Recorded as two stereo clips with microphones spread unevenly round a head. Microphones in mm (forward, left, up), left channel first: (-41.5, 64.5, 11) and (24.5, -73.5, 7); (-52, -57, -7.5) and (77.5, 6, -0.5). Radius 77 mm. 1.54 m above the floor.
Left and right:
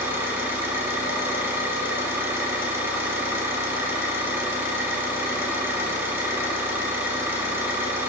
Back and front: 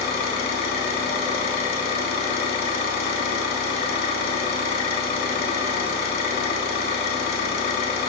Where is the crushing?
I don't hear crushing.